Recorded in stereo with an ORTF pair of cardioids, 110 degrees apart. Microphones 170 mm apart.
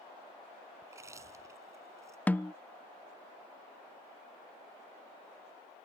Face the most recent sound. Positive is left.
turn(degrees=10)